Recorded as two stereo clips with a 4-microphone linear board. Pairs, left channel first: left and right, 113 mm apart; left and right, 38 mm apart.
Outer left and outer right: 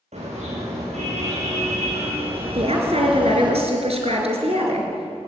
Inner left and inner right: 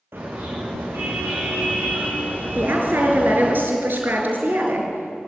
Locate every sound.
0.1 s a car horn: 80° right, 8.5 m; by 3.5 s 45° right (ahead or behind), 5 m
2.5 s a woman speaking: 65° right (ahead or behind), 4.5 m